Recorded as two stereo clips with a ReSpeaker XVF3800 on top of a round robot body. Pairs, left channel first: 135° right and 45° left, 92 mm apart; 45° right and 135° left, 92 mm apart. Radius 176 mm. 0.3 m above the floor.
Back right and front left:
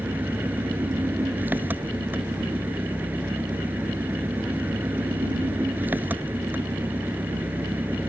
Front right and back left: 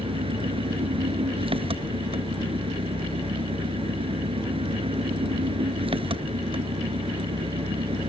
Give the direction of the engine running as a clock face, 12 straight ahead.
8 o'clock.